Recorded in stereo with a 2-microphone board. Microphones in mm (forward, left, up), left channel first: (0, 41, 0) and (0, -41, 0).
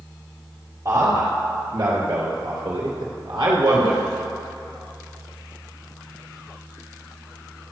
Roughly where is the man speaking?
Right.